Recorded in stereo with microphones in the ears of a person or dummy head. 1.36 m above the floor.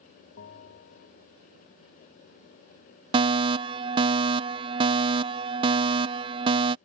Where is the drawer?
I don't hear a drawer.